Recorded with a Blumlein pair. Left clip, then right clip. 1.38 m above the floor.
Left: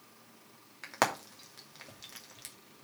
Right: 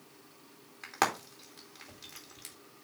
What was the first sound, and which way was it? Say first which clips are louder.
Frying: even; 5° left.